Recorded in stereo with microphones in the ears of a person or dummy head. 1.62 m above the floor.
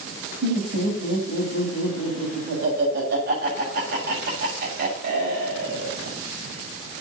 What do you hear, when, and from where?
0.4 s laughter: 65° right (ahead or behind), 7 m